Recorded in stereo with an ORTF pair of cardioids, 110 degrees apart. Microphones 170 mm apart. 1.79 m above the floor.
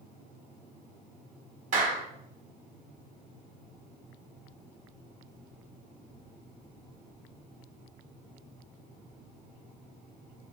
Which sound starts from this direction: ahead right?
A clap, at 1.7 s.